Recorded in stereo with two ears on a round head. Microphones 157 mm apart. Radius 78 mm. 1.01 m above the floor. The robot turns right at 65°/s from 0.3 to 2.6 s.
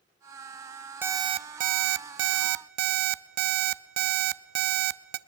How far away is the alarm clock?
About 0.6 m.